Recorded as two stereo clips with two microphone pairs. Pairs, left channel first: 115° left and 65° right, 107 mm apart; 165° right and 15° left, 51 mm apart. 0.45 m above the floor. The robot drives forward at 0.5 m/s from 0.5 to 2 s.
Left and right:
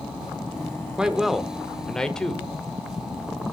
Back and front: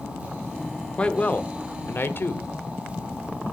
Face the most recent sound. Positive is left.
turn(degrees=-165)